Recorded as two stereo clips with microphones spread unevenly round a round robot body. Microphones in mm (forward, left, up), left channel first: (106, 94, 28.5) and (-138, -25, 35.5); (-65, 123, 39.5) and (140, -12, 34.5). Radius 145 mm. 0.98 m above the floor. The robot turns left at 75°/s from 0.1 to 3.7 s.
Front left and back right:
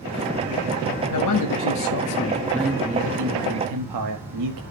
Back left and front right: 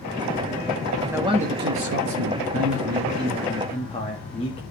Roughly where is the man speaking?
Ahead left.